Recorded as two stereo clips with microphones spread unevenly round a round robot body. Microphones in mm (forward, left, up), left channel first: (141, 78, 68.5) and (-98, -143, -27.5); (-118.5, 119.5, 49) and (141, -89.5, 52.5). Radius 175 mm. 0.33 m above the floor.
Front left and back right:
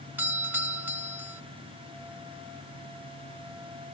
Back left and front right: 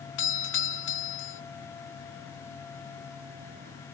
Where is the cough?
No cough in this recording.